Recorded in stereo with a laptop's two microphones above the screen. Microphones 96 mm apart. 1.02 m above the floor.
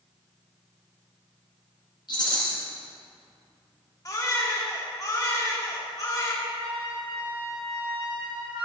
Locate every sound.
2.1 s a rattle: 50° left (ahead or behind), 3 m
4.0 s a baby crying: 40° left (ahead or behind), 1.5 m
6.5 s a flute: 65° right (ahead or behind), 5 m